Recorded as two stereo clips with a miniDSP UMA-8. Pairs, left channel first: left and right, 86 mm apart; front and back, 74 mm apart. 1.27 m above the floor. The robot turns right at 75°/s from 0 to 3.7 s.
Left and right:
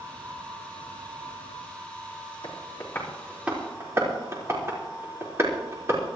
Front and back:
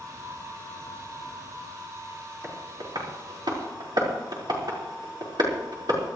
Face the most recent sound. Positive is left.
turn(degrees=-150)